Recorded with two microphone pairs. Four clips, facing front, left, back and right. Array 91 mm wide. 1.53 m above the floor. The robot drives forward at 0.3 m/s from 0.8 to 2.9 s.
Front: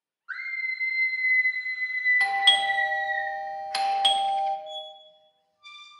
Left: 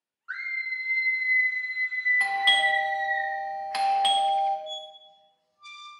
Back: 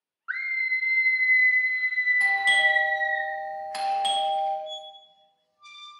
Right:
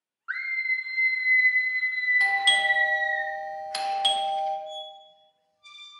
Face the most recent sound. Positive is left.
turn(degrees=115)